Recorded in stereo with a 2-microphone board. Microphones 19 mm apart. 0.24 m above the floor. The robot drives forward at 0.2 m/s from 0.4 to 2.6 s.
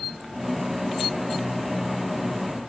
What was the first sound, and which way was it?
Only background noise.